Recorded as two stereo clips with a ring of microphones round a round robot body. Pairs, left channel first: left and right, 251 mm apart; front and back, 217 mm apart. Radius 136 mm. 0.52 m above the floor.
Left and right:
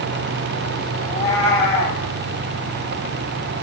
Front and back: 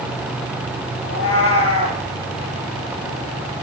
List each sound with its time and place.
1.0 s a cat meowing: 25° left, 5 m